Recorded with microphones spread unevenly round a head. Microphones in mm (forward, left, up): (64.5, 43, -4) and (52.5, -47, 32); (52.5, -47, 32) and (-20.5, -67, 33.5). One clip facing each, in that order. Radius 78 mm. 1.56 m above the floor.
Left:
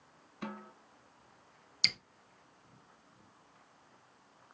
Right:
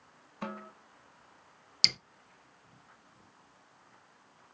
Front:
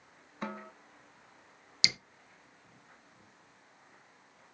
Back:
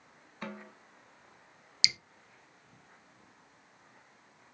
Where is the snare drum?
60° right, 2 m.